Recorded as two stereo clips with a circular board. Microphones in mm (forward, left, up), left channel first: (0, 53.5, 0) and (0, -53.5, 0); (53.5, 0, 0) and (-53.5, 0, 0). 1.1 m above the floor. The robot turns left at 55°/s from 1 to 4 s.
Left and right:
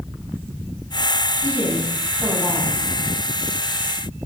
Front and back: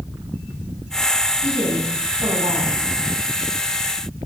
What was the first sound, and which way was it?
A woman speaking, 125° right.